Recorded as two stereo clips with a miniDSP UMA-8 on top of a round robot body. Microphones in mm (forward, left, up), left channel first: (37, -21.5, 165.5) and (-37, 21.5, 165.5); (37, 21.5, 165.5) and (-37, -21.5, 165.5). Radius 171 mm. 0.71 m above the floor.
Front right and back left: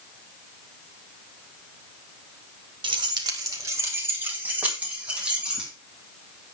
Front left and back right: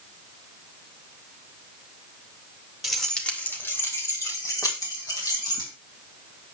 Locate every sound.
2.8 s keys jangling: 125° left, 1.7 m; by 5.7 s 70° left, 5 m